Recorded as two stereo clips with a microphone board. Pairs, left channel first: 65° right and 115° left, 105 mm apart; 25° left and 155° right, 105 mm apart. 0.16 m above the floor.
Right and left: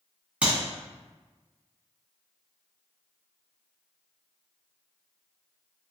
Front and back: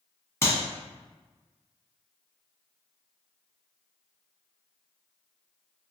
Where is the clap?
50° left, 0.9 m.